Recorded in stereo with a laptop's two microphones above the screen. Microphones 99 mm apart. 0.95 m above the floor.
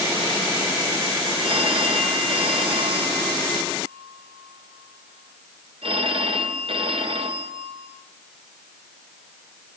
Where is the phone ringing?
70° right (ahead or behind), 2.5 m.